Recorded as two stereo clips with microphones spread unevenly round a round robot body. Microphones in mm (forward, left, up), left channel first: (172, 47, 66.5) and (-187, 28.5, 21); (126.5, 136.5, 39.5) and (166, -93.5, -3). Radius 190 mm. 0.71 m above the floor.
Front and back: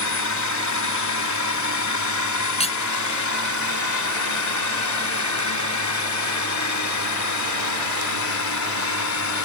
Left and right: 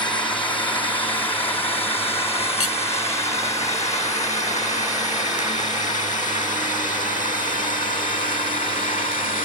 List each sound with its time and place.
0.0 s a drone: 25° left; by 9.5 s 45° left
2.6 s cutlery clinking: 75° left